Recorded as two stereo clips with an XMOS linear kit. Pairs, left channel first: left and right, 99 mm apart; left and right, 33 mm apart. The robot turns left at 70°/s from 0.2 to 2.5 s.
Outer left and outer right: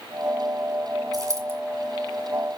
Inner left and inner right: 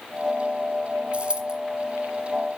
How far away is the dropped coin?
About 2.0 m.